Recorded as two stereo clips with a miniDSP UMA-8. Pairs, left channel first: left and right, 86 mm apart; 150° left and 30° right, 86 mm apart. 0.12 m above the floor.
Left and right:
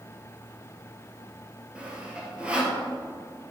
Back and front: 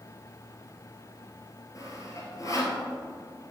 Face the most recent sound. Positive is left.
turn(degrees=-165)